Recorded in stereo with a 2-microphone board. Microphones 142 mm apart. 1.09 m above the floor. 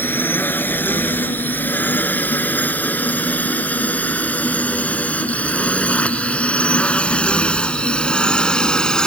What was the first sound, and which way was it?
A drone, 15° left (ahead or behind).